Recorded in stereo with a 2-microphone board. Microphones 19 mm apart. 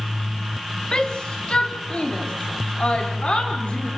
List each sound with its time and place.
0.9 s a shout: 50° left (ahead or behind), 2.5 m; by 3.9 s 65° left (ahead or behind), 4 m